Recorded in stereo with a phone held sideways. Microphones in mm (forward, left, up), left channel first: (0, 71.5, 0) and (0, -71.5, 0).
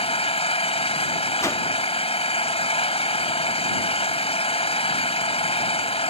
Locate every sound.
0.0 s an engine running: 45° left (ahead or behind)
1.4 s a whoosh: 20° left (ahead or behind)